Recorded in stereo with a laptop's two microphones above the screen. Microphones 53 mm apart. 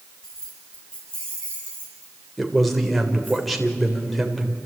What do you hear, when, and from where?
0.2 s keys jangling: 10° left (ahead or behind), 6.5 m; by 3.4 s 30° left (ahead or behind), 8.5 m
2.4 s a man speaking: centre (ahead or behind), 3.5 m